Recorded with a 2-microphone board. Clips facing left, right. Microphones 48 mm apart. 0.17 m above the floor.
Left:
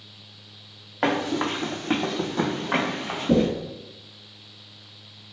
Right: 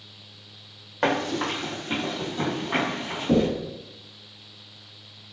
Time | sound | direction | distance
1.0 | running footsteps | 5° left (ahead or behind) | 0.6 m
3.3 | knocking | 60° left (ahead or behind) | 1.6 m